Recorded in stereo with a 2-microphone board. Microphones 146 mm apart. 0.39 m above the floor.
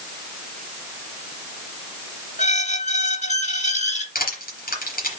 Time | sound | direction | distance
2.4 | a squeak | 55° left (ahead or behind) | 1.1 m
4.2 | crushing | 80° left | 3.5 m